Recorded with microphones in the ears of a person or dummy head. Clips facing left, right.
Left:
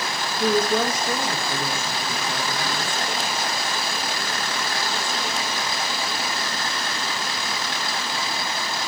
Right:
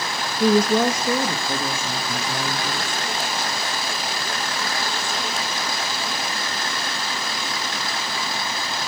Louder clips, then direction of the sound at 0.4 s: Right 4 dB; 90° right.